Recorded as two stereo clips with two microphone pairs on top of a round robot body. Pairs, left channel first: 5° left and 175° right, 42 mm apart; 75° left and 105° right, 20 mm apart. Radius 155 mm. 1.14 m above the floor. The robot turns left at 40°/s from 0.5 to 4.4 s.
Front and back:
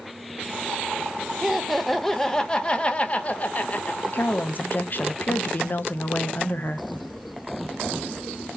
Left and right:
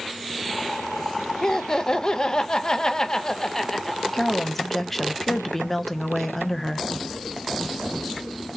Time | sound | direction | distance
1.4 | laughter | 105° left | 0.7 m
4.1 | a woman speaking | 15° left | 0.7 m